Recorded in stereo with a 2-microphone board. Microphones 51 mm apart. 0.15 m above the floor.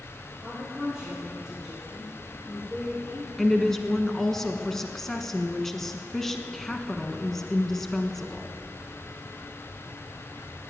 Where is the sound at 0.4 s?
10° right (ahead or behind), 4.5 m; by 3.3 s 10° left (ahead or behind), 7.5 m.